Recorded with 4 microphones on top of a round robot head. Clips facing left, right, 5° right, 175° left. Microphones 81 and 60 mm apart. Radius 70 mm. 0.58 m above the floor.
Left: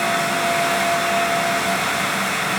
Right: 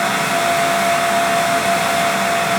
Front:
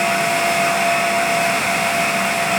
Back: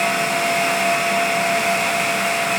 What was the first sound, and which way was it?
Only background noise.